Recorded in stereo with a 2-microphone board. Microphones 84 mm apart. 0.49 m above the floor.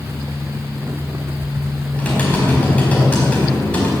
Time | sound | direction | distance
1.9 | typing on a keyboard | 15° left (ahead or behind) | 4 m